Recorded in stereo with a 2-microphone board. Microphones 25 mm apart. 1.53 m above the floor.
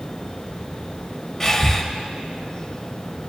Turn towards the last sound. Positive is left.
turn(degrees=15)  # may be behind; listen again after turning